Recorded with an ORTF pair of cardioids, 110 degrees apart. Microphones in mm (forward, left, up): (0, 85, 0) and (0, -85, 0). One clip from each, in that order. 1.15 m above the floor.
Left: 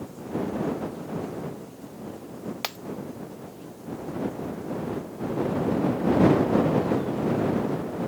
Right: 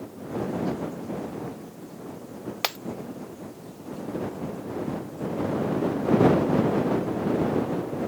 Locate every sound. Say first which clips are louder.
2.6 s breaking glass: right 5 dB; 25° right